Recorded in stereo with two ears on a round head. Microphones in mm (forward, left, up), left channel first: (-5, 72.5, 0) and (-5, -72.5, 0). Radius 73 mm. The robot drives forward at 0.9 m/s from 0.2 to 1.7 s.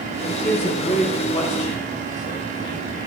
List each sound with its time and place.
0.3 s a man speaking: 35° left (ahead or behind), 3.5 m; by 3.1 s 55° left (ahead or behind), 2.5 m